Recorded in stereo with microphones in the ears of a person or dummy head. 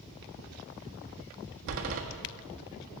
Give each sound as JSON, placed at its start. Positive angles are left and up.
{"t": 1.7, "sound": "a door slam", "side_deg": -65, "distance_m": 1.5}